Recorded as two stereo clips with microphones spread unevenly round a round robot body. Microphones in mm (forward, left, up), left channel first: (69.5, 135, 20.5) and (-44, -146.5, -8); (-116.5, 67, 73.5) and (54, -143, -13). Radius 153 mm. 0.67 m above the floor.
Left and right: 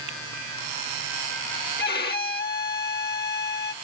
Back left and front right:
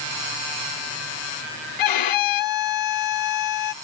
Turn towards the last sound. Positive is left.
turn(degrees=130)